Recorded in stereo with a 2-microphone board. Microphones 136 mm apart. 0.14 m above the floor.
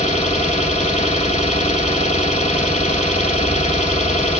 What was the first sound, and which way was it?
An engine running, 55° left (ahead or behind).